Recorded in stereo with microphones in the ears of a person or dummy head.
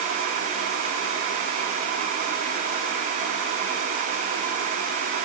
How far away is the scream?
No scream in this recording.